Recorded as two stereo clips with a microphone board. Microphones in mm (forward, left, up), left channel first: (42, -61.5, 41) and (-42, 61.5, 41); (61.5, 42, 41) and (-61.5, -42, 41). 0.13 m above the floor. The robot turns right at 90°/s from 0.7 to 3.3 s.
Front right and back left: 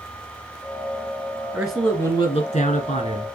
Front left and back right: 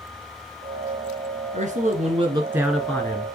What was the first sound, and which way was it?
A man speaking, 160° right.